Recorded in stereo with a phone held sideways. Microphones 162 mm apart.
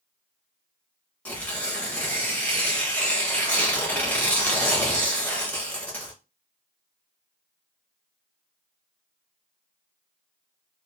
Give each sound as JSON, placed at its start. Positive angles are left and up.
{"t": 1.2, "sound": "tearing paper", "side_deg": 10, "distance_m": 0.8}